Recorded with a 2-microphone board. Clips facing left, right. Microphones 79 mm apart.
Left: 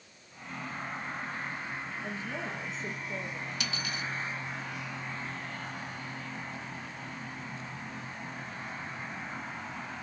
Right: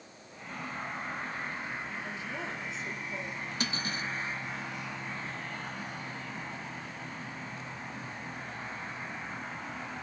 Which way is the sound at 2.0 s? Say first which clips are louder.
Left 1 dB; 40° left (ahead or behind).